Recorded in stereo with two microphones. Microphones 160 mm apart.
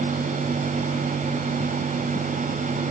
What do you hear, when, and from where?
Only background noise.